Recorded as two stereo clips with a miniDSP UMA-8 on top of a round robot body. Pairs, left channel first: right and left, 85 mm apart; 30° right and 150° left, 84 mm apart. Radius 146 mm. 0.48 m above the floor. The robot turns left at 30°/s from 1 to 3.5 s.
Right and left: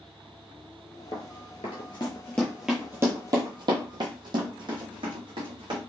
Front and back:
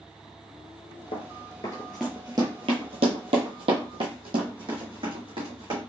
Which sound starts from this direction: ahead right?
Running footsteps, at 1.1 s.